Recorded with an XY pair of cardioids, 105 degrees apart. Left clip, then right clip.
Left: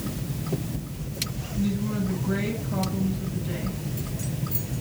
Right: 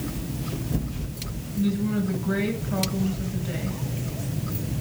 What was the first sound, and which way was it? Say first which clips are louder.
A woman speaking: right 3 dB; 25° right.